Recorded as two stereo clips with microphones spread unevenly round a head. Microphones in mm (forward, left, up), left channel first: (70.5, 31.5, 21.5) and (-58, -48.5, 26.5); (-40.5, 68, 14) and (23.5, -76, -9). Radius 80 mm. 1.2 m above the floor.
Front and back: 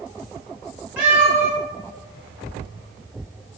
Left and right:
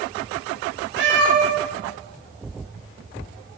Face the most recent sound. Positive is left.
turn(degrees=-65)